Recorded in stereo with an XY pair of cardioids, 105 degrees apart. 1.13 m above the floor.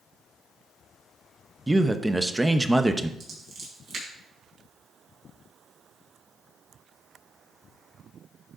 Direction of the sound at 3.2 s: 45° right.